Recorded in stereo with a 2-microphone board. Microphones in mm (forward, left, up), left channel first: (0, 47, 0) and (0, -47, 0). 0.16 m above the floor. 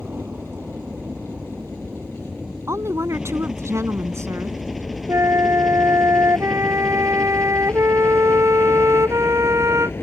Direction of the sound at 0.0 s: 20° right (ahead or behind).